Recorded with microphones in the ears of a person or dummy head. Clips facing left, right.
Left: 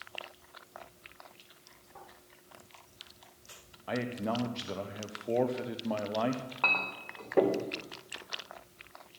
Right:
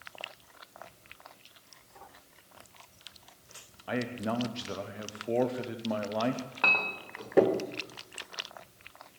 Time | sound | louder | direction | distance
3.9 | a man speaking | right 1 dB | 10° right (ahead or behind) | 1.0 m
6.6 | a clink | right 2 dB | 15° right (ahead or behind) | 0.8 m